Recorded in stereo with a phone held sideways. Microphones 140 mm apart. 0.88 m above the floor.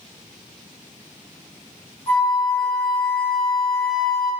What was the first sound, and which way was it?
A flute, 15° left (ahead or behind).